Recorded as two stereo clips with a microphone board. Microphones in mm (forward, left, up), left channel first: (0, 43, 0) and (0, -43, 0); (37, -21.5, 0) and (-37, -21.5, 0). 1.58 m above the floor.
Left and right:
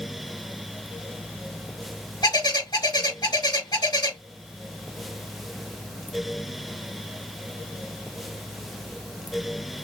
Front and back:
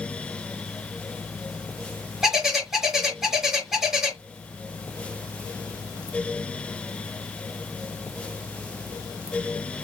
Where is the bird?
100° left, 2.5 m.